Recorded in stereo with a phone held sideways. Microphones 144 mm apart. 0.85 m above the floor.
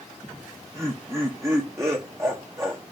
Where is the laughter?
20° right (ahead or behind), 0.6 m.